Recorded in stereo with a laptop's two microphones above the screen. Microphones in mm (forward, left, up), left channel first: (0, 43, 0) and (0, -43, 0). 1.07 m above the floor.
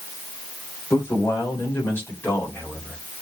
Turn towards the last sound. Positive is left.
turn(degrees=20)  # may be behind; listen again after turning